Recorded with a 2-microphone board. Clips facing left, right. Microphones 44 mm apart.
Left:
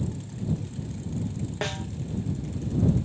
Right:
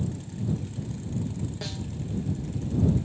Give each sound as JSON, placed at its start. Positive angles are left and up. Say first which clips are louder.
{"t": 1.6, "sound": "a snare drum", "louder": "left 5 dB", "side_deg": 50}